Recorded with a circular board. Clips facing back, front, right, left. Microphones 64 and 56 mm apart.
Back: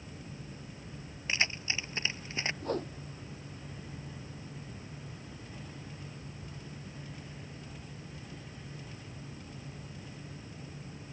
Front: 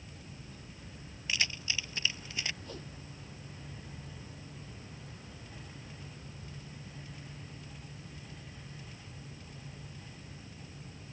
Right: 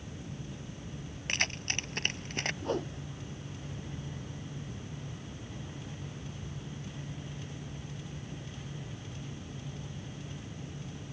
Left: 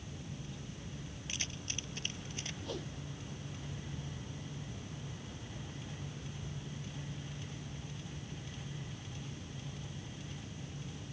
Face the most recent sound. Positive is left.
turn(degrees=-140)